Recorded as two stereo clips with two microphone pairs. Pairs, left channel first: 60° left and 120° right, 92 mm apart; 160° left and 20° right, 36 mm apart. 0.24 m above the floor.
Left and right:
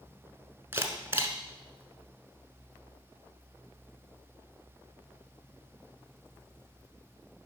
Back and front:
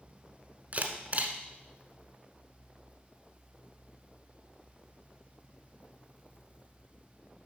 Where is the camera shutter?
60° right, 1.1 m.